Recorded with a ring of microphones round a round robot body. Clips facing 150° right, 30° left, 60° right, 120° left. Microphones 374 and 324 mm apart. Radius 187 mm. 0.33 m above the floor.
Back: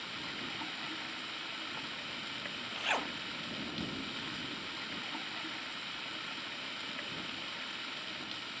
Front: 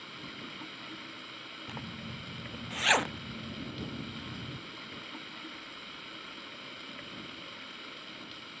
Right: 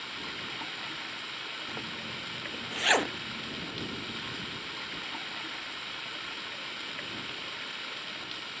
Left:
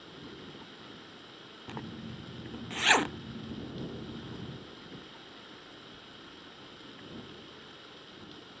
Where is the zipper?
50° left.